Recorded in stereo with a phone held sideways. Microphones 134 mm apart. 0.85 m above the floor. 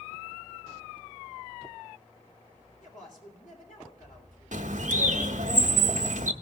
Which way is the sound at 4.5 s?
70° right (ahead or behind).